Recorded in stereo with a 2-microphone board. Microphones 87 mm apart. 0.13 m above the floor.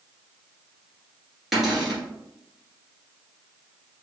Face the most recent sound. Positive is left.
turn(degrees=0)  # may be behind; listen again after turning